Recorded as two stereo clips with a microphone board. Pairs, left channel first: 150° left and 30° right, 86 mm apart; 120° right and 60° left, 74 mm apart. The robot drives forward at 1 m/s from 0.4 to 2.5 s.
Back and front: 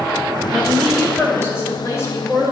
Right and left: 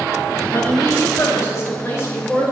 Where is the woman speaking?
130° right, 1.6 m; by 2.5 s 165° right, 3 m.